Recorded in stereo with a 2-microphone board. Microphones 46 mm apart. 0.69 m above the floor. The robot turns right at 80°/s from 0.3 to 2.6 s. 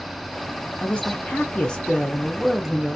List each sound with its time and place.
0.8 s a man speaking: 20° left (ahead or behind), 0.5 m; by 3.0 s 10° right (ahead or behind), 0.5 m